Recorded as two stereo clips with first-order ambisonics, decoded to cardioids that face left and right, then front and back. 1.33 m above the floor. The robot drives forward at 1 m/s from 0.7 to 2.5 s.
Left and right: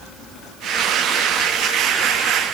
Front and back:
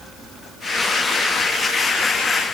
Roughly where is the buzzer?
I don't hear a buzzer.